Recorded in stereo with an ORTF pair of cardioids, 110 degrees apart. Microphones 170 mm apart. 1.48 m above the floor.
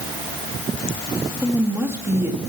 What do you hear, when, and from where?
1.4 s a woman speaking: 15° right, 2.5 m